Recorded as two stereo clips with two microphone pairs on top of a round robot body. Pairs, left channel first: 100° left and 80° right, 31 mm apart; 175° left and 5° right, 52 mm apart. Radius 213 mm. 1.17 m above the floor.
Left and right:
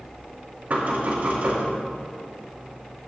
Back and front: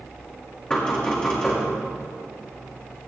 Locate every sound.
0.7 s knocking: 115° right, 5 m